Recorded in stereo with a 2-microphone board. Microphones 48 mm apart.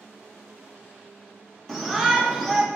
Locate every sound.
1.7 s a shout: centre (ahead or behind), 0.9 m